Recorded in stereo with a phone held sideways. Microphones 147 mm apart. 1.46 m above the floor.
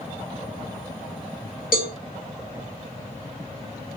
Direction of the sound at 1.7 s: 80° left.